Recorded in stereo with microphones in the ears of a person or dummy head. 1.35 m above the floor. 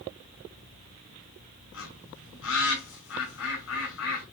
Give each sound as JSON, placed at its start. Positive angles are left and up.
{"t": 1.7, "sound": "a bird", "side_deg": 70, "distance_m": 5.5}